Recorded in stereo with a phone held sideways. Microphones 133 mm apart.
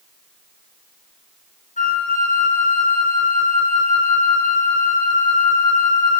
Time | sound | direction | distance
1.8 | a flute | 75° left (ahead or behind) | 1.7 m